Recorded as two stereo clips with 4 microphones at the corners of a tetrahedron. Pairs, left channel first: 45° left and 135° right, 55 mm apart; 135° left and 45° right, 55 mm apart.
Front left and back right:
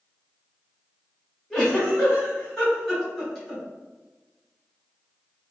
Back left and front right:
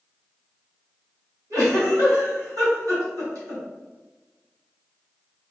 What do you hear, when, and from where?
1.5 s a giggle: 35° right, 1.9 m